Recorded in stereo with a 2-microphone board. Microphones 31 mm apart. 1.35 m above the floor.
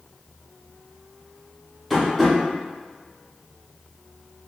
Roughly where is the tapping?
Centre.